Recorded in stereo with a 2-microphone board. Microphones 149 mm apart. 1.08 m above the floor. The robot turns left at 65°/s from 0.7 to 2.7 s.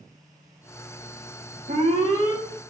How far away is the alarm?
About 0.9 m.